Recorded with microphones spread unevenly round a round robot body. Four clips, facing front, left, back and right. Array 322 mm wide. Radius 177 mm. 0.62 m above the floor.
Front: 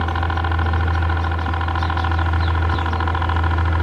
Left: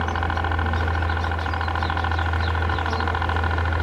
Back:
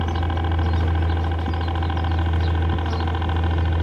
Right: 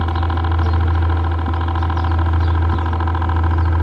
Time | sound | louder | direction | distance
0.0 | a helicopter | right 2 dB, front 4 dB | 110° right | ?